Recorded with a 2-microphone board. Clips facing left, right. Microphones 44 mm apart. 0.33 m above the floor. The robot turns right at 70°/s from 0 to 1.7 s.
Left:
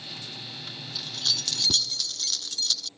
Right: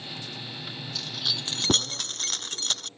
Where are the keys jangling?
175° left; by 2.9 s 135° right.